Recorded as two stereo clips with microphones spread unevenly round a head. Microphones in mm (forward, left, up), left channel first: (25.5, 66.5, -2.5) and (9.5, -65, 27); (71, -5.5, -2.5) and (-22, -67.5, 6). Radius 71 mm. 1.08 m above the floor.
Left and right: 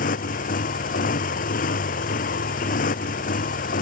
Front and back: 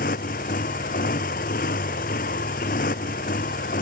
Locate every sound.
0.0 s a motorcycle: 60° left